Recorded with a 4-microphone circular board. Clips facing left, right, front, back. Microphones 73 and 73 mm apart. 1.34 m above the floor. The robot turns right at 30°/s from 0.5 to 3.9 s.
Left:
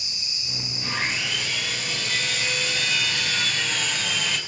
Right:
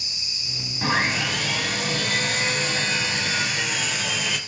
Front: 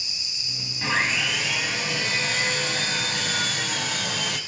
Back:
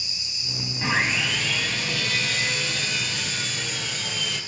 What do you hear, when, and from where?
0.8 s sawing: 100° right, 3.5 m; by 4.4 s 5° right, 3.5 m